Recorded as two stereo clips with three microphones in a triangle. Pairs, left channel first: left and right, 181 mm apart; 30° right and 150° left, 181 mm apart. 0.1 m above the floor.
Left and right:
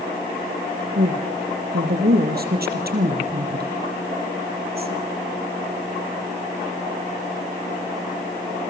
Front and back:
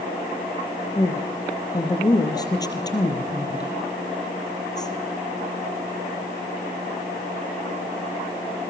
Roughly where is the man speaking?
Right.